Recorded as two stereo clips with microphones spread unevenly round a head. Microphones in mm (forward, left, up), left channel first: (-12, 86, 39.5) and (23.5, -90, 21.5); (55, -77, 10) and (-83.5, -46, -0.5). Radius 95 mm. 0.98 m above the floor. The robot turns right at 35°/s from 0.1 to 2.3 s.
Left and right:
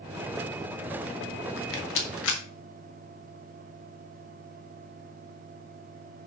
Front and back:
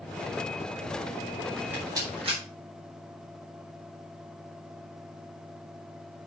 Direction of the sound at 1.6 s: 85° left.